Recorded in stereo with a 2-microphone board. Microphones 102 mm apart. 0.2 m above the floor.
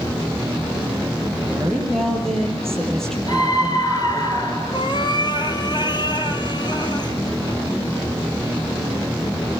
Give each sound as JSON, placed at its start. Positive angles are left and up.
{"t": 1.4, "sound": "a woman speaking", "side_deg": 5, "distance_m": 5.0}
{"t": 3.3, "sound": "a scream", "side_deg": 40, "distance_m": 3.5}
{"t": 4.7, "sound": "a cat meowing", "side_deg": 50, "distance_m": 1.8}